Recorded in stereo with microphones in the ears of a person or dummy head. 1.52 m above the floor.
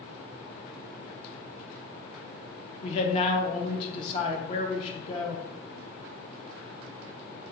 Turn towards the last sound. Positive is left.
turn(degrees=45)  # may be behind; listen again after turning